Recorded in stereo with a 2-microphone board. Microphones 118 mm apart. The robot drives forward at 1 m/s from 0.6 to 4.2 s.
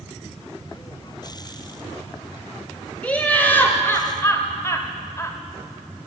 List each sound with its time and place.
3.0 s laughter: 10° left (ahead or behind), 2.0 m; by 5.4 s 25° left (ahead or behind), 1.1 m